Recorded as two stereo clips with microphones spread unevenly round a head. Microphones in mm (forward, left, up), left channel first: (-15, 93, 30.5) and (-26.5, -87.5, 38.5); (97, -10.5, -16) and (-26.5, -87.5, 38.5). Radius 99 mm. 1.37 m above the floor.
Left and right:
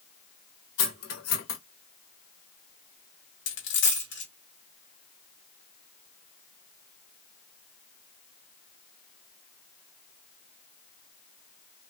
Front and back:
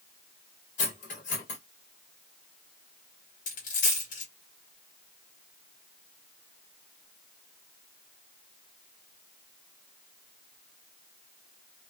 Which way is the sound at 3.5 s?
90° left.